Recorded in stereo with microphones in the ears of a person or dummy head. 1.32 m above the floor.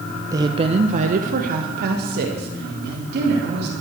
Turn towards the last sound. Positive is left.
turn(degrees=-60)  # may be behind; listen again after turning